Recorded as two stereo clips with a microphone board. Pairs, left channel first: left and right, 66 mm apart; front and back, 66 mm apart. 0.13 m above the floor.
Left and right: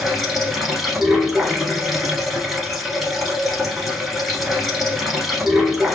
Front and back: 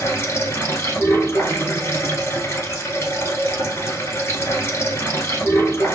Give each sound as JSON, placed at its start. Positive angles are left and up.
{"t": 0.0, "sound": "running water", "azimuth_deg": -5, "distance_m": 1.1}